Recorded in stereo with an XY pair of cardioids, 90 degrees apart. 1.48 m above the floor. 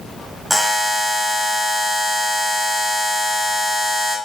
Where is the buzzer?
5° left, 1.3 m.